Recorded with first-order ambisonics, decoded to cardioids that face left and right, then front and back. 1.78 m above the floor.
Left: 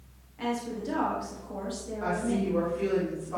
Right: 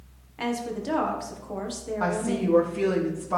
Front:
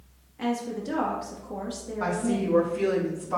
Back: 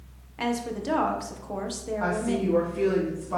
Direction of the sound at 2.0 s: 90° right.